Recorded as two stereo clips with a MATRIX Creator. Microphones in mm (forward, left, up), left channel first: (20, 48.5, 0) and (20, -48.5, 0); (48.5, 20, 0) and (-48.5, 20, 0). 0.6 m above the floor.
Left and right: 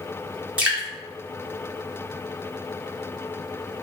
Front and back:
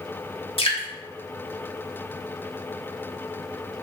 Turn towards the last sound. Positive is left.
turn(degrees=-15)